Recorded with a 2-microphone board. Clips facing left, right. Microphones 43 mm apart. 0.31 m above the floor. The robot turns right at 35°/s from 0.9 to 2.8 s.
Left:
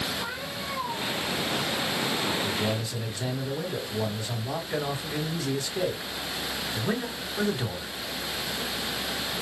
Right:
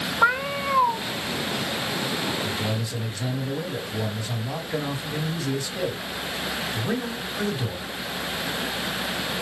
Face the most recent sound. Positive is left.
turn(degrees=5)  # may be behind; listen again after turning